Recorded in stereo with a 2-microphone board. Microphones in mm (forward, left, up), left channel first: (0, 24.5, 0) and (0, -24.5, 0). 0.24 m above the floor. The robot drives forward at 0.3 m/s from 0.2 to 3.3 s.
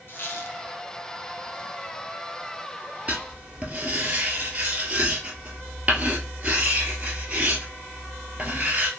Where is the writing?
30° right (ahead or behind), 1.0 m; by 8.9 s 25° right (ahead or behind), 1.1 m.